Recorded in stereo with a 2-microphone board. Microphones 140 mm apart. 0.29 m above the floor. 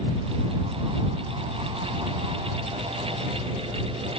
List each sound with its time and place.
Only background noise.